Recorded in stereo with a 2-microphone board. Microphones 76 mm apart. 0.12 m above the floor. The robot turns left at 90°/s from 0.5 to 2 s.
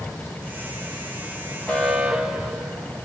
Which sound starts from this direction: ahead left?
An alarm, at 1.7 s.